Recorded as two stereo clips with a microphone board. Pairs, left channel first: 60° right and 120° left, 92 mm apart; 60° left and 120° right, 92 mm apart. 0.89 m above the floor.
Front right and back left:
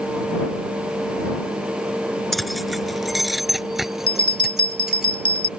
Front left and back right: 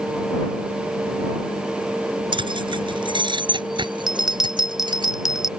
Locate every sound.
2.3 s keys jangling: 150° right; by 5.1 s 155° right
4.1 s a bell: 35° right